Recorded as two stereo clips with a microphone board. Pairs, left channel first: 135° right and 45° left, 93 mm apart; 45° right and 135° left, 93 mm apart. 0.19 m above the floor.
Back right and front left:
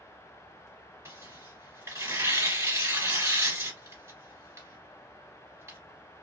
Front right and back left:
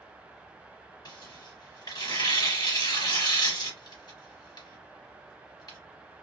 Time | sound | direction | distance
1.1 | tearing paper | 15° right | 2.0 m